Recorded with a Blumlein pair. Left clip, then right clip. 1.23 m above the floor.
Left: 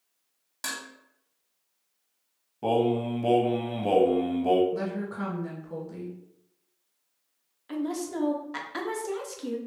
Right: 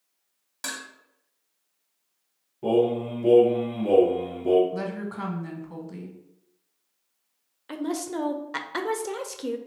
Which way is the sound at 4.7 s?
10° right.